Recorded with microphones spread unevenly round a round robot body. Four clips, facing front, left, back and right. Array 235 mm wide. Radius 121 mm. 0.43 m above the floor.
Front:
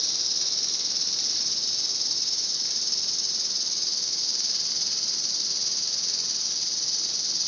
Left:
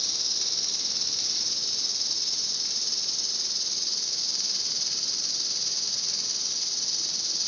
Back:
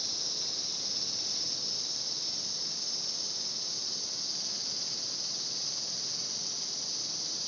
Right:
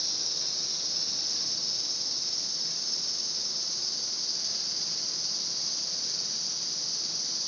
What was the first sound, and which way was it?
An insect, 80° left.